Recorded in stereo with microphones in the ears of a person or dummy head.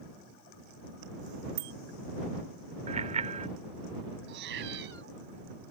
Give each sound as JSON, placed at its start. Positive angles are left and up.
{"t": 1.6, "sound": "a bicycle bell", "side_deg": -80}
{"t": 2.9, "sound": "a bicycle bell", "side_deg": -35}
{"t": 4.3, "sound": "a cat meowing", "side_deg": -75}